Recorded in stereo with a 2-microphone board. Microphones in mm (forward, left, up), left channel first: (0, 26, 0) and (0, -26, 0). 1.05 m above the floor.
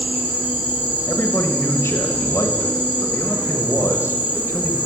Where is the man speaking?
55° left (ahead or behind), 1.2 m.